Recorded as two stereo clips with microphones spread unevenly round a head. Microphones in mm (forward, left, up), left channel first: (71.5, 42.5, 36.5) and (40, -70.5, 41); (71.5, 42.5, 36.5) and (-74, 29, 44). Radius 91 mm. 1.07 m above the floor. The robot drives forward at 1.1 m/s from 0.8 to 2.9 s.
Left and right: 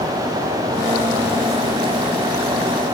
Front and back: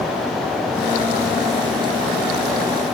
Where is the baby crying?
No baby crying in this recording.